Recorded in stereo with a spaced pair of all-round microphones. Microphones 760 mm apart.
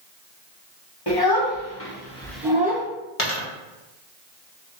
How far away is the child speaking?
About 1.2 m.